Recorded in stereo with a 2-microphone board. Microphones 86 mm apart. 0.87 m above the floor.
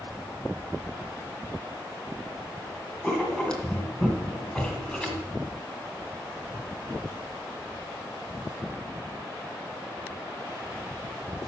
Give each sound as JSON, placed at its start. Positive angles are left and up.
{"t": 3.0, "sound": "writing", "side_deg": 10, "distance_m": 1.9}